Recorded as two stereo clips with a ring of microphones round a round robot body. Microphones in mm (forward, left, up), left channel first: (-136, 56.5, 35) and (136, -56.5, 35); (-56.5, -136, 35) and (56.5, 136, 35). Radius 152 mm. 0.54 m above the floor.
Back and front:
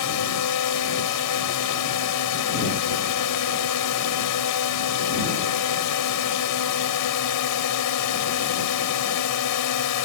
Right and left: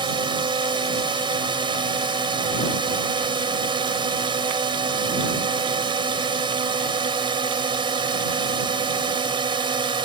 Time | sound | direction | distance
0.0 | a drone | 140° left | ?